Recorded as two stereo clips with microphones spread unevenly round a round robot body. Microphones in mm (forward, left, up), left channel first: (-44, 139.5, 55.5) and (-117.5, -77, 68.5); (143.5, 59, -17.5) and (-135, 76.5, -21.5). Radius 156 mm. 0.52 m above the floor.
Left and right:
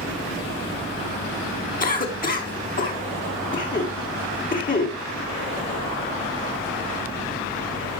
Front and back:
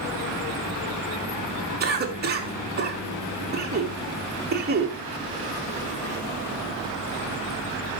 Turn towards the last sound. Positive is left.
turn(degrees=120)